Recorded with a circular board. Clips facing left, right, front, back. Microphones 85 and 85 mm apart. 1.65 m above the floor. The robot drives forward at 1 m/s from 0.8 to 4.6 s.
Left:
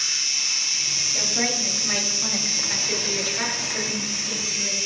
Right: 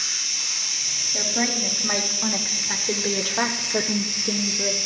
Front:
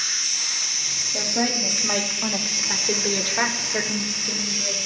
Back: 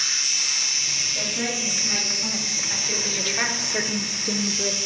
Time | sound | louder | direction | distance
0.0 | an insect | left 1 dB, back 1 dB | 40° right | 1.6 m
1.1 | a woman speaking | right 2 dB, front 4 dB | 20° right | 3 m